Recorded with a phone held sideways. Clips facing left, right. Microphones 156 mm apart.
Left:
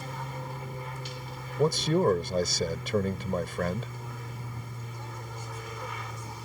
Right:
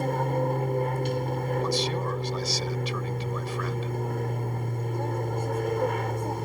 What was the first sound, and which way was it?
An aircraft, 55° right (ahead or behind).